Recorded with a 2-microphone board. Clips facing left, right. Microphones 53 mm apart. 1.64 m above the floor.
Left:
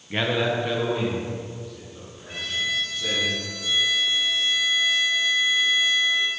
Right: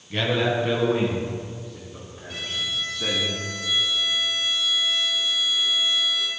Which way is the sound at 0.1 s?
30° left (ahead or behind).